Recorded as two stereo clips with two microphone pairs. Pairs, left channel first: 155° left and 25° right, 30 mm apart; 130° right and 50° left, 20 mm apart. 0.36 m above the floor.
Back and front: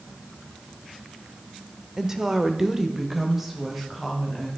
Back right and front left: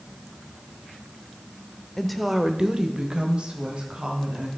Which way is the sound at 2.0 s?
55° right.